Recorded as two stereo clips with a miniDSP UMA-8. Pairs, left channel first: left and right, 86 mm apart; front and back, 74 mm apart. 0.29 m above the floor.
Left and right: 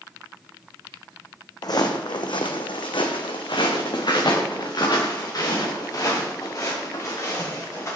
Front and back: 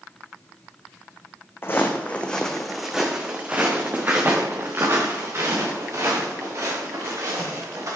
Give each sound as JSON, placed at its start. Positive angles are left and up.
{"t": 1.6, "sound": "footsteps", "azimuth_deg": 55, "distance_m": 1.0}